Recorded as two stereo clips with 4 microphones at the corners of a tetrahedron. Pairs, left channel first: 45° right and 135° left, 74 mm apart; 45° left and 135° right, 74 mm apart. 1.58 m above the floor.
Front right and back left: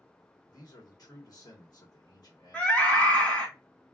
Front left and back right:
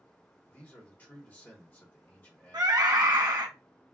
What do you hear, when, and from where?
0.5 s a man speaking: 20° right, 1.3 m
2.5 s a scream: 110° right, 0.8 m